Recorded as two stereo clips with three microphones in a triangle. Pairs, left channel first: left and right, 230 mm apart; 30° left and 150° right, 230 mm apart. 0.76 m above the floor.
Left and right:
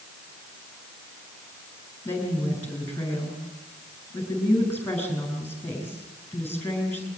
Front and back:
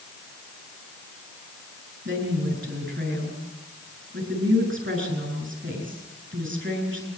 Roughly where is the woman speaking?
Behind.